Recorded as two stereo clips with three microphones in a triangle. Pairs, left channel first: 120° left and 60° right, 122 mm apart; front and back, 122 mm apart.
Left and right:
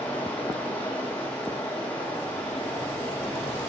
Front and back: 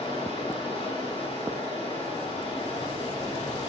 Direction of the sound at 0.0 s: 40° left.